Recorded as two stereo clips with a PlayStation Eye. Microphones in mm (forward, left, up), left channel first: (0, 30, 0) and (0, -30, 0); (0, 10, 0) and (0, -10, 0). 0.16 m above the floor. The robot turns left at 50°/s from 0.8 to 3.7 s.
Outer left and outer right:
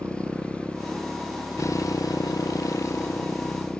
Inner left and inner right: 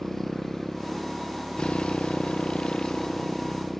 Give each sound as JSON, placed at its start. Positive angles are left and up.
{"t": 0.0, "sound": "a motorcycle", "azimuth_deg": 160}